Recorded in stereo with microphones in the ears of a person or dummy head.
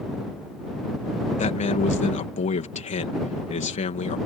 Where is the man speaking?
40° left (ahead or behind).